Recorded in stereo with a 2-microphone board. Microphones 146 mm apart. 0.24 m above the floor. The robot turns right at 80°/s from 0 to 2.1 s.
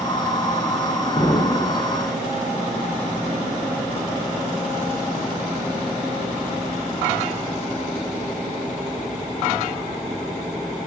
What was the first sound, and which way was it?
An explosion, 45° left.